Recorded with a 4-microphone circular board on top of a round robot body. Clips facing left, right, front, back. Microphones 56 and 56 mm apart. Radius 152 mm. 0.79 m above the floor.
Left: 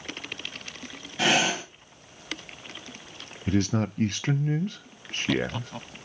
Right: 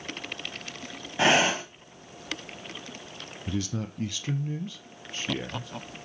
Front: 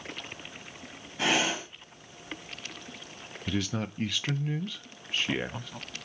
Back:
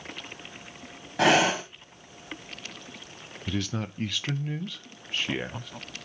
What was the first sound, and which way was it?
Breathing, 155° right.